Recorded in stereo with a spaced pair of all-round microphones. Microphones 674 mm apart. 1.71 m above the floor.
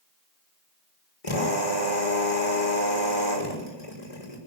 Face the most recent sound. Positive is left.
turn(degrees=55)  # may be behind; listen again after turning